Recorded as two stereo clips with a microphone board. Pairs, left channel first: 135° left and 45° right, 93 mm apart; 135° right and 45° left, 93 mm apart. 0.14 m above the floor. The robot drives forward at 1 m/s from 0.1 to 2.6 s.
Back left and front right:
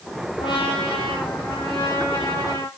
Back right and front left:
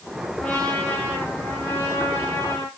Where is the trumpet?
150° left, 3.5 m; by 2.7 s 160° left, 5.5 m.